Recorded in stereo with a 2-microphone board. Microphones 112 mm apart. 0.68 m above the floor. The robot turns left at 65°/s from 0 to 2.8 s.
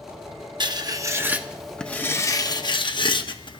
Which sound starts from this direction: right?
Writing, at 0.6 s.